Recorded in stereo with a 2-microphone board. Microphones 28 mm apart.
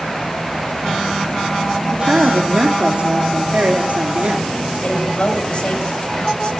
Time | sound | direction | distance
1.9 | a woman speaking | 45° right (ahead or behind) | 3 m
4.8 | a woman speaking | 35° left (ahead or behind) | 7.5 m